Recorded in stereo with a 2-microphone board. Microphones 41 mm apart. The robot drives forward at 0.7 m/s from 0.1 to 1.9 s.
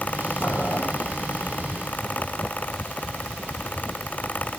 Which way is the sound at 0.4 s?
70° left (ahead or behind).